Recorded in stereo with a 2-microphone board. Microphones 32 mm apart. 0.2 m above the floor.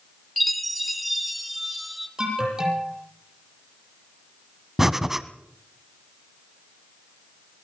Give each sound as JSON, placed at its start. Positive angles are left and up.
{"t": 0.4, "sound": "a chime", "side_deg": 0, "distance_m": 3.5}
{"t": 2.2, "sound": "an alarm", "side_deg": -20, "distance_m": 9.0}
{"t": 4.8, "sound": "breathing", "side_deg": -15, "distance_m": 1.2}